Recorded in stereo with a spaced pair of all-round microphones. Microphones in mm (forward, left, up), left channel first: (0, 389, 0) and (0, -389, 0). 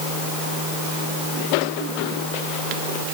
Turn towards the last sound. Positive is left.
No sound to turn to.